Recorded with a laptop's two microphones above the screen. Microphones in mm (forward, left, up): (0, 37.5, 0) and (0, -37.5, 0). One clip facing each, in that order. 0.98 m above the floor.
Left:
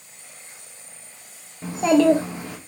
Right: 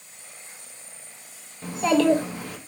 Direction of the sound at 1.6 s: 20° left (ahead or behind).